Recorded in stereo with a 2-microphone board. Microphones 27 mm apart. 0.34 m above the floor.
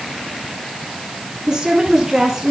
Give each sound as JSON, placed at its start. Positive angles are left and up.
{"t": 1.5, "sound": "a woman speaking", "side_deg": -25, "distance_m": 4.0}